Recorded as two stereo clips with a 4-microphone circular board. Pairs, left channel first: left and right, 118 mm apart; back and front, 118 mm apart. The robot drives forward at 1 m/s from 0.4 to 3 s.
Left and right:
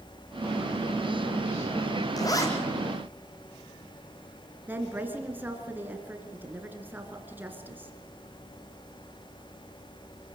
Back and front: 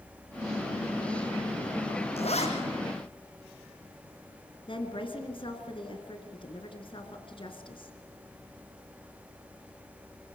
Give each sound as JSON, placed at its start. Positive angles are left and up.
{"t": 2.2, "sound": "a zipper", "azimuth_deg": 150, "distance_m": 2.5}
{"t": 4.7, "sound": "a woman speaking", "azimuth_deg": -160, "distance_m": 2.5}